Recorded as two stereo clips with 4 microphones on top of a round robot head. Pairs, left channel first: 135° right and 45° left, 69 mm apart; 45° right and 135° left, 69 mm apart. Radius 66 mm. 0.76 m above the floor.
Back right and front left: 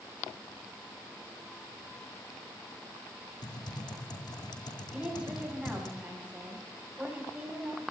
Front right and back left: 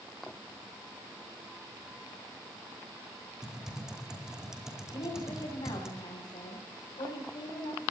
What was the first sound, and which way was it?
Typing on a keyboard, 145° right.